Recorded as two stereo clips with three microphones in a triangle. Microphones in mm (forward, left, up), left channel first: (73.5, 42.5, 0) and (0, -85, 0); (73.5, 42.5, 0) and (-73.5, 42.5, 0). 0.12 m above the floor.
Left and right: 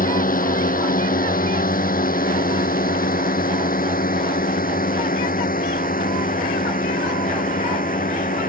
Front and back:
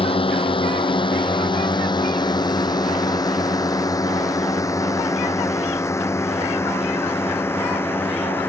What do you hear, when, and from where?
0.0 s a drone: 50° left; by 8.5 s 75° left